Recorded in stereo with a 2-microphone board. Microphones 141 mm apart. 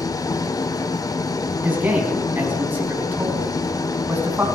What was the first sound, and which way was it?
An engine running, 25° left (ahead or behind).